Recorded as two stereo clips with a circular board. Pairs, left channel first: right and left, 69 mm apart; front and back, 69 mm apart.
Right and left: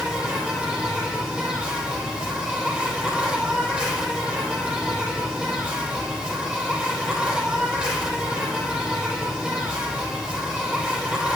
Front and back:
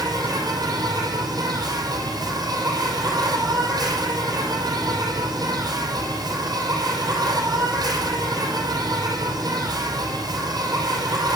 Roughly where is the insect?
Behind.